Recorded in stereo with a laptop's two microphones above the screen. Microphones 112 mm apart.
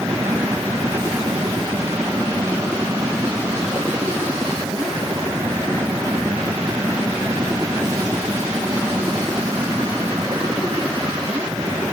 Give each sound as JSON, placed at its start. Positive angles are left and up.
{"t": 0.0, "sound": "a machine running", "side_deg": -25}